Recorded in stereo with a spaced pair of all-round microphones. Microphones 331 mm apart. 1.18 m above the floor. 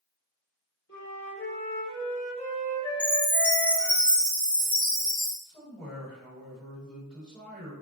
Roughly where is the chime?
Right.